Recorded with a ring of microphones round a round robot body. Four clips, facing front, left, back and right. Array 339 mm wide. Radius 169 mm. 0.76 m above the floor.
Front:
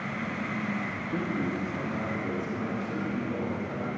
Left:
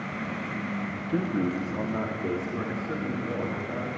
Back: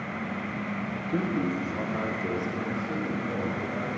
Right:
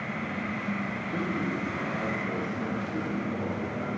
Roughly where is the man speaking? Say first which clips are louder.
Left 5 dB, back 3 dB; behind left.